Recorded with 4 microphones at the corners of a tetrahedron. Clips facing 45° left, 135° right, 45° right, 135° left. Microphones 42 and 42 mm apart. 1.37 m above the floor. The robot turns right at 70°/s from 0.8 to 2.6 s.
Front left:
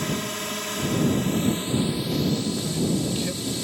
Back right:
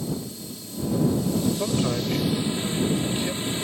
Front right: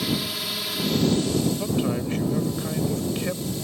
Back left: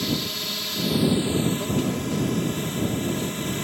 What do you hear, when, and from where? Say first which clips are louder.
0.0 s a drone: front left 4 dB, even; 40° left; by 3.6 s 165° left
1.6 s a man speaking: back right 1 dB, even; 125° right; by 3.4 s 55° right